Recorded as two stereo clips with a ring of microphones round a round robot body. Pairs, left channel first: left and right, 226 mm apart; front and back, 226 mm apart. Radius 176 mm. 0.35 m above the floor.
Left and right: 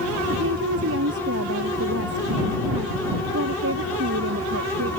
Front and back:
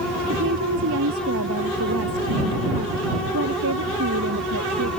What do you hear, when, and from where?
0.3 s a woman speaking: 135° right